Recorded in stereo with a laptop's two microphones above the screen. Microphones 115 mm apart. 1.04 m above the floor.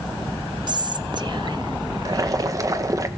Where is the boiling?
30° right (ahead or behind), 1.1 m.